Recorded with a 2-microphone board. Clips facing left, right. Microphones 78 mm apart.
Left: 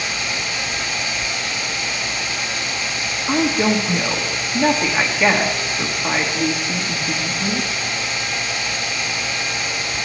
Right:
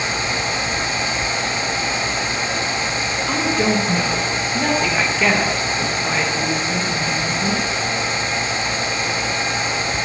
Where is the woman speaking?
15° left (ahead or behind), 1.8 m.